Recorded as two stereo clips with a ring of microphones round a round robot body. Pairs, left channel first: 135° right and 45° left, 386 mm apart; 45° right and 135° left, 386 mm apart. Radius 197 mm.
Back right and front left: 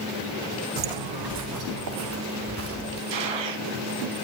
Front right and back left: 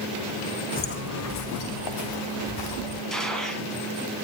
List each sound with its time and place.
0.8 s footsteps: 25° left, 1.4 m; by 3.0 s 15° right, 4 m
3.1 s a gunshot: 45° left, 3.5 m